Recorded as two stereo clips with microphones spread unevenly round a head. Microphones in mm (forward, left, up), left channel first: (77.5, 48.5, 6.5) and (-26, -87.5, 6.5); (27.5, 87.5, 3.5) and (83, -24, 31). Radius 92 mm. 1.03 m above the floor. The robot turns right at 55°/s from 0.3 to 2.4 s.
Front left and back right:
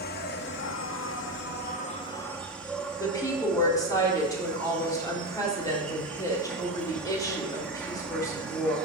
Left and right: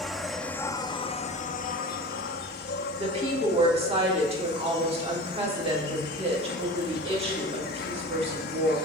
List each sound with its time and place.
0.0 s an insect: 20° left, 0.7 m; by 8.9 s 135° left, 0.7 m
3.0 s a woman speaking: 20° right, 3 m